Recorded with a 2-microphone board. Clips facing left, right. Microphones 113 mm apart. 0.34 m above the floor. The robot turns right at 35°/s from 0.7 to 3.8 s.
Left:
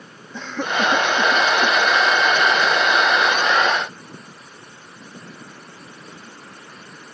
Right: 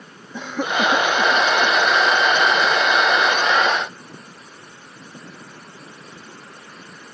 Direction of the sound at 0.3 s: 10° right (ahead or behind).